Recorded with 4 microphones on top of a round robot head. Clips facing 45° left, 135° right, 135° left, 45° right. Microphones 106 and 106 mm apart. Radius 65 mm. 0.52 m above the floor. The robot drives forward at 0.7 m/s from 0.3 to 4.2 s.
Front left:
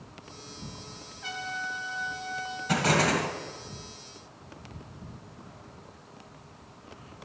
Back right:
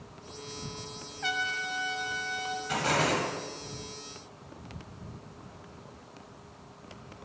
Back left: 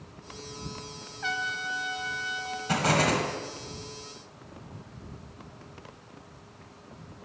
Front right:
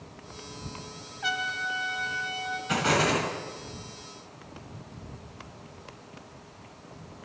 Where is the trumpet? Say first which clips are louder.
Back right 2 dB, front right 1 dB; 120° right, 0.7 m; by 2.6 s 155° right, 1.4 m.